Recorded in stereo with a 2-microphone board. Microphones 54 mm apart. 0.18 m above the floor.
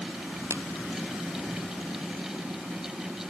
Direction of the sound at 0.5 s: 60° right (ahead or behind).